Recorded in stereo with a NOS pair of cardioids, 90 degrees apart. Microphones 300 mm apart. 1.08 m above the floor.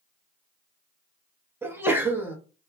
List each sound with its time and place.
1.6 s a sneeze: 10° right, 0.9 m